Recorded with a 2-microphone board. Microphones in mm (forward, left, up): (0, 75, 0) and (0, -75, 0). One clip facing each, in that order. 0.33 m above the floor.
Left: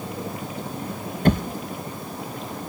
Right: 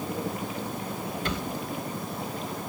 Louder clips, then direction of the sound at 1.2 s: Left 14 dB; 50° left (ahead or behind).